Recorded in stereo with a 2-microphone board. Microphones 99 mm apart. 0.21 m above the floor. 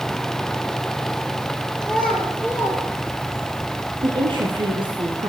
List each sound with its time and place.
1.8 s a child speaking: 5° right (ahead or behind), 3.5 m; by 3.5 s 35° right (ahead or behind), 2.5 m
4.0 s a woman speaking: 60° right (ahead or behind), 2 m